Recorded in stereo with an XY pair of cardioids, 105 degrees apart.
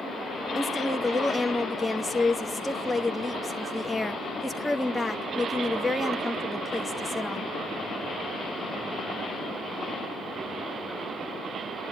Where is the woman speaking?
10° left, 2 m.